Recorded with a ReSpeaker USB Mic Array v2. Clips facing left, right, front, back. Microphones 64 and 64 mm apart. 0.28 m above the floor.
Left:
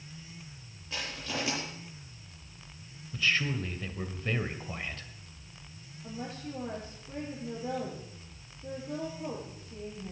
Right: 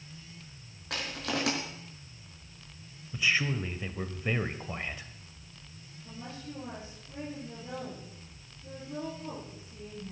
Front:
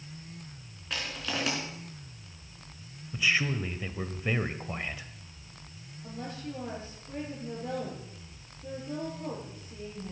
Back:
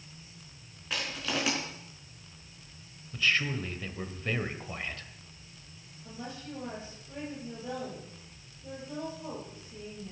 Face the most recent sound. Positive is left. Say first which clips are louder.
# left 4 dB, front 3 dB
turn(degrees=55)